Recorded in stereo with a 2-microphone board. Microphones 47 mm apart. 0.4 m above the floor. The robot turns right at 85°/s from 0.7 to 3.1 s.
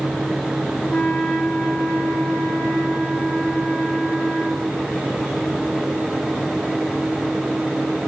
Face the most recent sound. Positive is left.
turn(degrees=-35)